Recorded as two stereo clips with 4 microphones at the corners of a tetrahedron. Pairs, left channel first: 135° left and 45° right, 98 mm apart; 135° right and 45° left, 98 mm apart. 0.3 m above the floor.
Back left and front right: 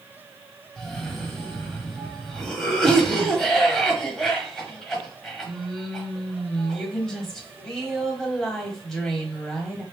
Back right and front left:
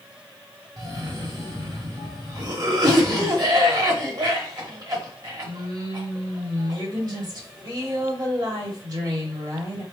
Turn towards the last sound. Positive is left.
turn(degrees=50)